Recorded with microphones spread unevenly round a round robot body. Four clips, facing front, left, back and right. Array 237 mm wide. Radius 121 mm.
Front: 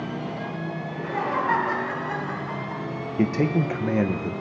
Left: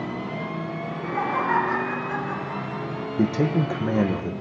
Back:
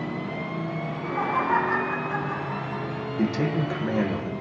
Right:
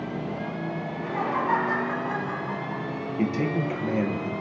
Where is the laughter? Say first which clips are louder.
Left 3 dB, front 1 dB; straight ahead, 4.5 m.